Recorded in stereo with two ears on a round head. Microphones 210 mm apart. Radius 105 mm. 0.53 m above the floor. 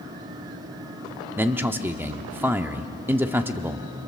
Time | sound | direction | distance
1.4 | a man speaking | 10° right (ahead or behind) | 0.8 m